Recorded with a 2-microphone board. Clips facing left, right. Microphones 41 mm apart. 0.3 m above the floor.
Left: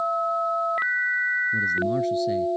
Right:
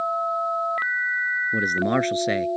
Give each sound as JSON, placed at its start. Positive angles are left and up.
{"t": 1.5, "sound": "a man speaking", "side_deg": -70}